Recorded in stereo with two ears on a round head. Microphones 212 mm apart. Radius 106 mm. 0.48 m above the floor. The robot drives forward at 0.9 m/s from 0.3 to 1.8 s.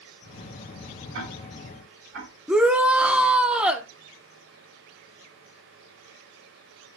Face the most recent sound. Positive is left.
turn(degrees=-5)  # may be behind; listen again after turning